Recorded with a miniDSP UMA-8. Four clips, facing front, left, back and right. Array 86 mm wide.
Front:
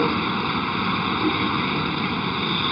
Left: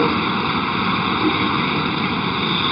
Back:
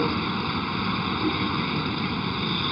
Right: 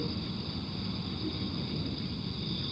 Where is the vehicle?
75° left.